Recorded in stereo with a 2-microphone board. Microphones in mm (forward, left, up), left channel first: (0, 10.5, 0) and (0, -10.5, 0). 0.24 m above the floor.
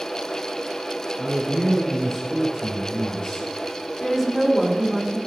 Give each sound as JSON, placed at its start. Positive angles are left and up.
{"t": 1.2, "sound": "a man speaking", "side_deg": -10, "distance_m": 2.0}
{"t": 4.0, "sound": "a woman speaking", "side_deg": 15, "distance_m": 1.8}